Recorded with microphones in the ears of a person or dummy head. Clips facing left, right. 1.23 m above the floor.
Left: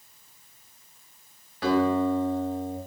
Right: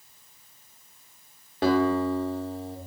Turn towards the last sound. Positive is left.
turn(degrees=-20)  # may be behind; listen again after turning